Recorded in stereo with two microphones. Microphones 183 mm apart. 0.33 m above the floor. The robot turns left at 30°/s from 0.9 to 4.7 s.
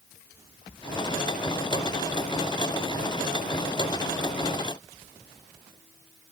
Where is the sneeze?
No sneeze in this recording.